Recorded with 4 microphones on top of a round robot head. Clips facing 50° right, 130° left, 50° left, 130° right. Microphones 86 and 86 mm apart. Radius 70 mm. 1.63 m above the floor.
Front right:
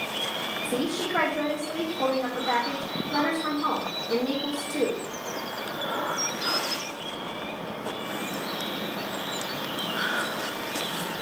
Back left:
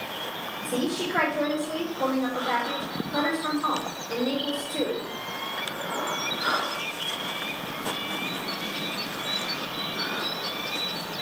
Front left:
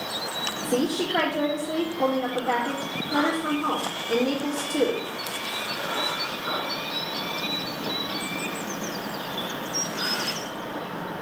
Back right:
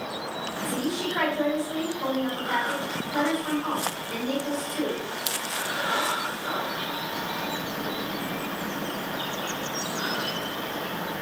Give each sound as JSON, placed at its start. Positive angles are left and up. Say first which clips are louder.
{"t": 0.6, "sound": "a woman speaking", "louder": "back left 1 dB, front left 5 dB", "azimuth_deg": 15, "distance_m": 2.0}